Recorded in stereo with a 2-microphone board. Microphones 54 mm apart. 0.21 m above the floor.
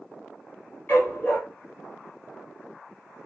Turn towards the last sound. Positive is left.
turn(degrees=30)  # may be behind; listen again after turning